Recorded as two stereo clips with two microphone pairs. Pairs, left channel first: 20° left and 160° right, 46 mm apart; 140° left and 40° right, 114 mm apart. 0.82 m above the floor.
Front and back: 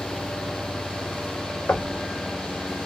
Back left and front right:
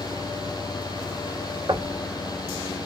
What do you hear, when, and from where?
1.7 s knocking: 5° left, 0.8 m